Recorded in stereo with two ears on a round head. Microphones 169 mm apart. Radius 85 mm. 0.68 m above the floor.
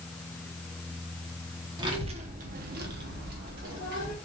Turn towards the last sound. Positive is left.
turn(degrees=-45)  # may be behind; listen again after turning